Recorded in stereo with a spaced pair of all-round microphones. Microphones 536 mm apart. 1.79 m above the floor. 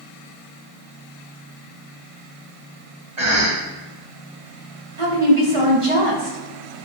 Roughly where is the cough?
Right.